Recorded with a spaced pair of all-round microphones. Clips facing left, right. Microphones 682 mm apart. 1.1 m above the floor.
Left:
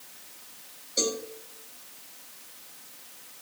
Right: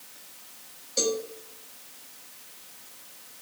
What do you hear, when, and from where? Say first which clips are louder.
1.0 s a cowbell: right 3 dB; 30° right (ahead or behind), 1.8 m